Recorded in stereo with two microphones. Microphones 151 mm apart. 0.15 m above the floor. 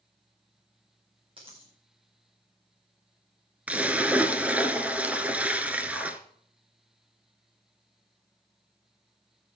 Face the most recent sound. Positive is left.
turn(degrees=-10)  # may be behind; listen again after turning